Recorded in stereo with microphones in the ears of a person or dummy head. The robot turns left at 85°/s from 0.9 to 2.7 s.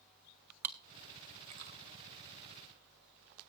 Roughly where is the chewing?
Centre.